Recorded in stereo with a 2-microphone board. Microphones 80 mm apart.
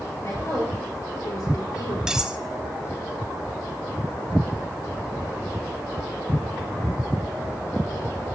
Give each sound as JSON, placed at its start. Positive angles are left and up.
{"t": 0.2, "sound": "a woman speaking", "side_deg": 40, "distance_m": 5.0}
{"t": 2.1, "sound": "cutlery clinking", "side_deg": -10, "distance_m": 0.7}